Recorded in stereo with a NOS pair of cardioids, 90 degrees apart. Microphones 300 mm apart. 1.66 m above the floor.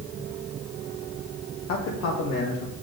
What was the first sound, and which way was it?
A man speaking, 60° left.